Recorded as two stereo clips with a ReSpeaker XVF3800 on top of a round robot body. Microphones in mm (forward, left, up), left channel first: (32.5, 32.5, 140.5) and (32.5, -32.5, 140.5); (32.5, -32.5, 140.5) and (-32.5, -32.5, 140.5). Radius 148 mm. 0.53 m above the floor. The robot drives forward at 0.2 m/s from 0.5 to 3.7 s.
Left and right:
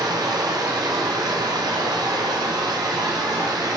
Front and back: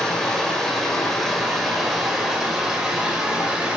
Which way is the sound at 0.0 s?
85° right.